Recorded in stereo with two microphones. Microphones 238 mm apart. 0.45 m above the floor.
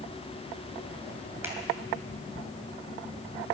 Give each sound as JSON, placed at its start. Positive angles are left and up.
{"t": 1.4, "sound": "a finger snap", "side_deg": -10, "distance_m": 3.0}